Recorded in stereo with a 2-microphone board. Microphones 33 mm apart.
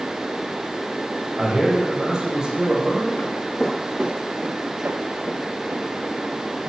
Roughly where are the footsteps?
Left.